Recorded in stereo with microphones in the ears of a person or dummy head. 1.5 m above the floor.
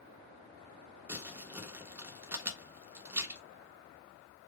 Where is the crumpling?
10° right (ahead or behind), 0.7 m.